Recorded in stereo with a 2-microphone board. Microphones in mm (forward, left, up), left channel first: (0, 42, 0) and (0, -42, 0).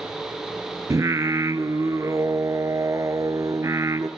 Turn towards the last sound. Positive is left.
turn(degrees=-40)  # may be behind; listen again after turning